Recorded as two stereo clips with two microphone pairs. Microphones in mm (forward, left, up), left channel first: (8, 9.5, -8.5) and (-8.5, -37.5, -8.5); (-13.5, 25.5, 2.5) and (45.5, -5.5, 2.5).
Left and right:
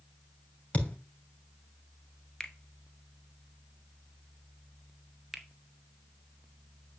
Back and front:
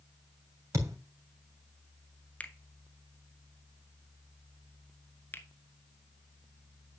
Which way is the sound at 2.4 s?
120° left.